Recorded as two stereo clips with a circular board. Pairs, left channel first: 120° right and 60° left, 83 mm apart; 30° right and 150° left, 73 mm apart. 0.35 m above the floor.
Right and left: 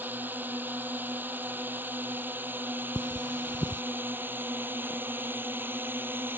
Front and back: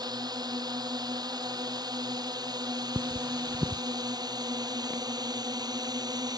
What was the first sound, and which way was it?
A drone, 130° left.